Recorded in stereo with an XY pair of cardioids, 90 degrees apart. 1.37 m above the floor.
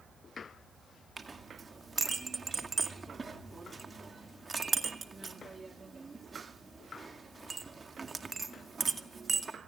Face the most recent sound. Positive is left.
turn(degrees=-30)